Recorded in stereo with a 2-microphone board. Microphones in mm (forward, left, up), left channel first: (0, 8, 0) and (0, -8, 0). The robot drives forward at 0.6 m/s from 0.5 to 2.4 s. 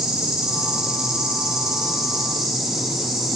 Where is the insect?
85° right, 1.1 m; by 3.4 s 45° right (ahead or behind), 1.6 m.